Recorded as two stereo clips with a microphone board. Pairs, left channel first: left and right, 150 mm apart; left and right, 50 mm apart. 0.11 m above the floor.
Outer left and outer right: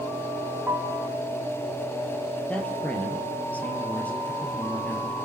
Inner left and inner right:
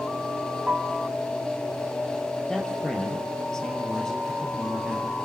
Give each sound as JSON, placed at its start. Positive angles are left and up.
{"t": 0.7, "sound": "a piano", "side_deg": -10, "distance_m": 4.5}
{"t": 2.5, "sound": "a man speaking", "side_deg": 10, "distance_m": 3.5}